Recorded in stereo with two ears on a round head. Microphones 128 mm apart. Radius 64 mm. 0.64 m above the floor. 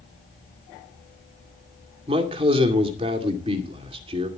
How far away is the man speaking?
About 2 m.